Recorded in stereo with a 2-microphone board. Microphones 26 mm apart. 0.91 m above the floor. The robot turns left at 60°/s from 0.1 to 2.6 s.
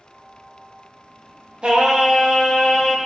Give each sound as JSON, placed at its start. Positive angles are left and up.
{"t": 1.6, "sound": "singing", "azimuth_deg": -145, "distance_m": 0.6}